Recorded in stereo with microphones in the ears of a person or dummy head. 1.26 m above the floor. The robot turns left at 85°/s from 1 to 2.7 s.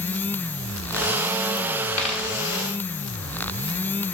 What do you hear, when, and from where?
2.0 s a dropped coin: 15° left (ahead or behind), 1.4 m; by 2.3 s 10° right (ahead or behind), 1.4 m